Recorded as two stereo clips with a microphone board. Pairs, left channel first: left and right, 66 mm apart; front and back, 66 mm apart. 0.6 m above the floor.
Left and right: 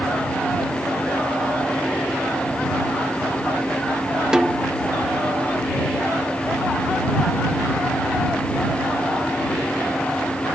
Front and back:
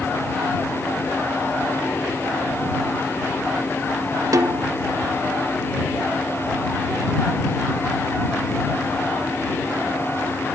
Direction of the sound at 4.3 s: 165° right.